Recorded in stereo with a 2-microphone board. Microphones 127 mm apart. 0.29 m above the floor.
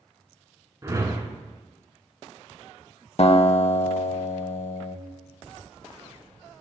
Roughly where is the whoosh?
Right.